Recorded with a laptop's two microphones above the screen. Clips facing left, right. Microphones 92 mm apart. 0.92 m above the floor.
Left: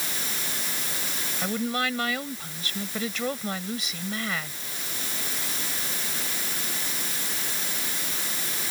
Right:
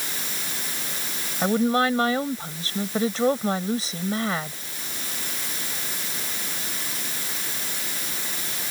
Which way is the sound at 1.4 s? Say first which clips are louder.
Right 8 dB; 35° right (ahead or behind).